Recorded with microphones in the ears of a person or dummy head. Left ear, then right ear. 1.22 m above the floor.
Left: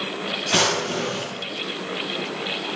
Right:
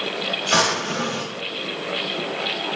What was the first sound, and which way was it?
A drawer, 65° right (ahead or behind).